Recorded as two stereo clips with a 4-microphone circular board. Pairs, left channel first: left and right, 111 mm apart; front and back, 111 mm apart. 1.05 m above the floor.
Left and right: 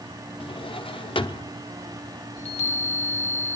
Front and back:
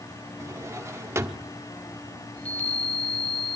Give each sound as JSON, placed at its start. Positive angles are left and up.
{"t": 0.4, "sound": "a drawer", "azimuth_deg": 120, "distance_m": 0.9}
{"t": 2.4, "sound": "a chime", "azimuth_deg": 75, "distance_m": 2.5}